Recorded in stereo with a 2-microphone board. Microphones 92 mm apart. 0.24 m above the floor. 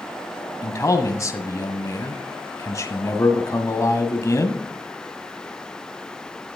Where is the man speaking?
35° left (ahead or behind), 1.3 m.